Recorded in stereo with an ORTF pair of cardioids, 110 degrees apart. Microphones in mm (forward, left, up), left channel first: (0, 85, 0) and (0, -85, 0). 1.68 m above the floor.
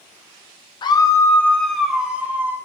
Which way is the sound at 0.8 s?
30° left.